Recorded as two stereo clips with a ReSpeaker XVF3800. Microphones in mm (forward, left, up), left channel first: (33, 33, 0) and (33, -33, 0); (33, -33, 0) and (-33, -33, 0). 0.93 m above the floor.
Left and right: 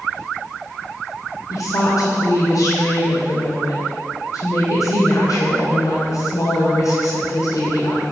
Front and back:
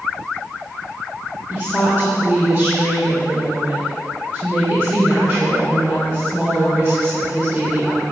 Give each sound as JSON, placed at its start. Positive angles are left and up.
{"t": 1.5, "sound": "a woman speaking", "azimuth_deg": 100, "distance_m": 3.0}